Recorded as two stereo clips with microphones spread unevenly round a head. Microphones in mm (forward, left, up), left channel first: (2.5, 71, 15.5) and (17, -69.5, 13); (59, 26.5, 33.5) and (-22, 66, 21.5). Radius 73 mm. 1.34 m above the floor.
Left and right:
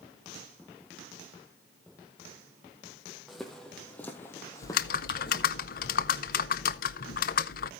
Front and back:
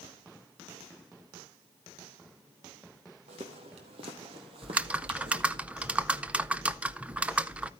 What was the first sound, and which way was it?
Footsteps, 175° right.